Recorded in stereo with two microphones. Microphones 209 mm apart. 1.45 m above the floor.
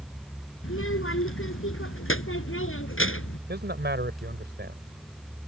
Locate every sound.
0.6 s a child speaking: 80° left
3.5 s a man speaking: 55° right (ahead or behind)